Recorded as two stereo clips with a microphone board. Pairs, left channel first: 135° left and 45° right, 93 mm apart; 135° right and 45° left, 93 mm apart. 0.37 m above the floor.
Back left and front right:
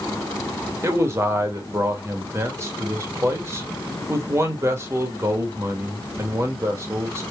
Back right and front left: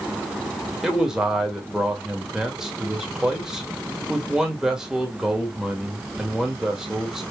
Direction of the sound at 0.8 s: 35° right.